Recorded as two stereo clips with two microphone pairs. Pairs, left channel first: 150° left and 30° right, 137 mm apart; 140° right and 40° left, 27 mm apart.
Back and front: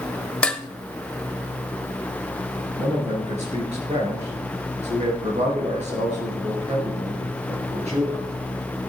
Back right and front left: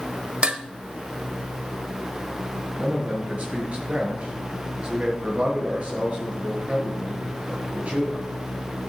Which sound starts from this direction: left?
Dishes clattering, at 0.4 s.